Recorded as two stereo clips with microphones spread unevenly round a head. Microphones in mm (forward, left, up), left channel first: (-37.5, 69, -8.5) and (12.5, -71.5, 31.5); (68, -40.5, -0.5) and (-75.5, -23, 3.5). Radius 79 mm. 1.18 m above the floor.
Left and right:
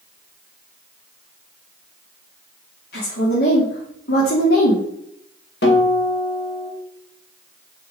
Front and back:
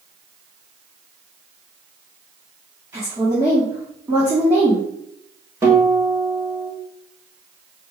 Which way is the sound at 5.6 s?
100° left.